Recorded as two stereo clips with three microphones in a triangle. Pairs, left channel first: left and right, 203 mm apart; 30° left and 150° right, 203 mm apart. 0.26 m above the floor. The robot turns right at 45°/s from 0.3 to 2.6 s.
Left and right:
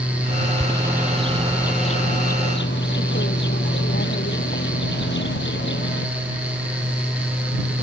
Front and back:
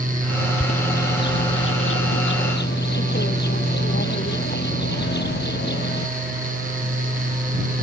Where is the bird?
30° right; by 6.1 s 65° left.